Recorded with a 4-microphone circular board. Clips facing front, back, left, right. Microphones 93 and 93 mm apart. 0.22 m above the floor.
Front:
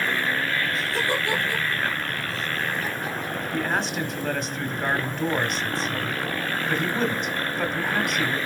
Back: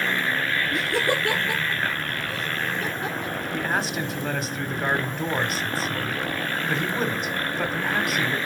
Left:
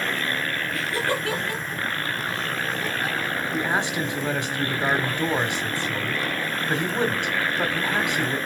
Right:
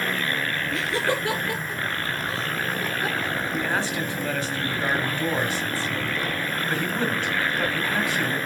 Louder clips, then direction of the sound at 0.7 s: Back 2 dB, right 2 dB; 155° right.